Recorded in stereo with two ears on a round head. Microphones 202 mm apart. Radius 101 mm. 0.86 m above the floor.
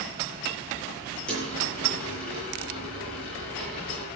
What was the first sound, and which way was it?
A dropped coin, 5° left (ahead or behind).